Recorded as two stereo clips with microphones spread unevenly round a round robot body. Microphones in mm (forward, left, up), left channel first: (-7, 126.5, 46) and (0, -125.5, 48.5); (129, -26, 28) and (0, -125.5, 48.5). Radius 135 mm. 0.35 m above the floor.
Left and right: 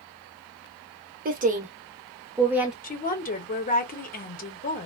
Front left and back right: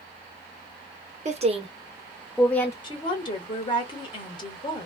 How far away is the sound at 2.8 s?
About 1.0 m.